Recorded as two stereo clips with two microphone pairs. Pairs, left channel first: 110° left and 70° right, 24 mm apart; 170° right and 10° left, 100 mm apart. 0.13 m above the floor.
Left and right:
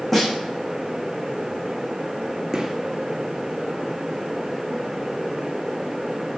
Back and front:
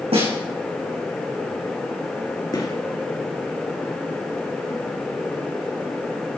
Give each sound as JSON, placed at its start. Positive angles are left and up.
{"t": 0.1, "sound": "a snare drum", "azimuth_deg": 20, "distance_m": 6.5}
{"t": 2.5, "sound": "a gunshot", "azimuth_deg": -140, "distance_m": 2.5}